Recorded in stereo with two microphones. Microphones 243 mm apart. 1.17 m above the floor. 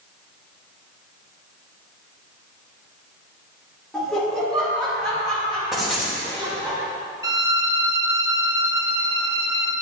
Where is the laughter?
Centre (ahead or behind), 2.5 m; by 6.7 s 5° left (ahead or behind), 6.5 m.